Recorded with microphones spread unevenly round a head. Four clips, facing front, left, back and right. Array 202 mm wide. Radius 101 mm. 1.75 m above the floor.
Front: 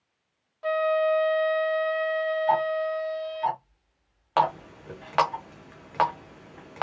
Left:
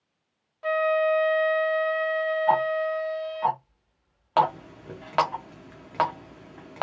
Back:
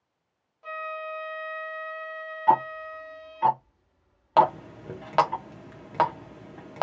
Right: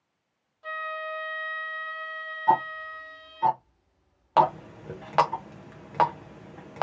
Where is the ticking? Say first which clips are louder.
Right 2 dB, back 5 dB; 130° right, 0.8 m.